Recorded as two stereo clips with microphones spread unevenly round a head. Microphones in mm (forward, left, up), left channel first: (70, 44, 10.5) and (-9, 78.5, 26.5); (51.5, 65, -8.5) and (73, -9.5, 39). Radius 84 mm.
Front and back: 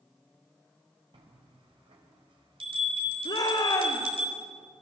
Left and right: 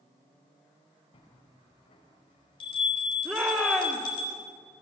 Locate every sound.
1.1 s a bell: 135° left, 4.5 m
3.2 s a shout: straight ahead, 3 m